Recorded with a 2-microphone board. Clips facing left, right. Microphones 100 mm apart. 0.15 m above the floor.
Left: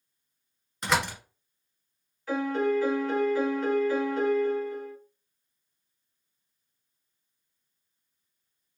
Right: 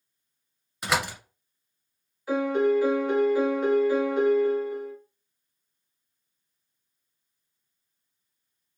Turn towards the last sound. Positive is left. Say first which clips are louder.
# right 4 dB
turn(degrees=-15)  # may be behind; listen again after turning